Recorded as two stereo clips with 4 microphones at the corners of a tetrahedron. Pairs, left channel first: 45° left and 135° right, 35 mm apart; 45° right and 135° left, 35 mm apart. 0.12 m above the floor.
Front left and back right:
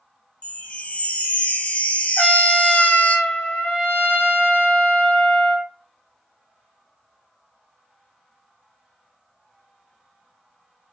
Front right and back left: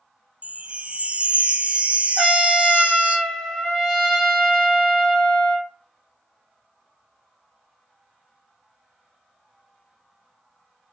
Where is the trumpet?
40° left, 1.1 m.